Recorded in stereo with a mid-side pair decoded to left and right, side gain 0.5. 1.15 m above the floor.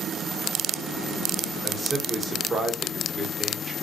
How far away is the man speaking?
About 1.0 m.